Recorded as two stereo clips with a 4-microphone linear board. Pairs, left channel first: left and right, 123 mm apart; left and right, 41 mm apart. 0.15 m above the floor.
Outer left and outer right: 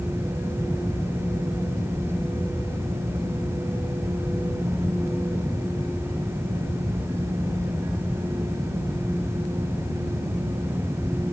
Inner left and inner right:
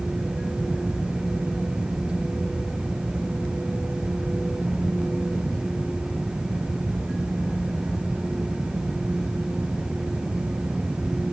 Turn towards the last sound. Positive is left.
No sound to turn to.